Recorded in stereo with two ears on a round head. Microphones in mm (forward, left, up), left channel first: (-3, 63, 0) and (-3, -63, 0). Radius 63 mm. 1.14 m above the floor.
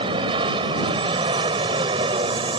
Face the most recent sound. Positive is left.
turn(degrees=-35)  # may be behind; listen again after turning